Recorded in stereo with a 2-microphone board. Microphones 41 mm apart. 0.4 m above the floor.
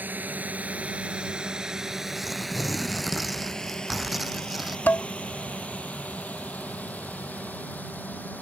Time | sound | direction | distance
0.0 | a drone | 45° right (ahead or behind) | ?
2.1 | tearing paper | centre (ahead or behind) | ?
4.9 | dishes clattering | 45° left (ahead or behind) | ?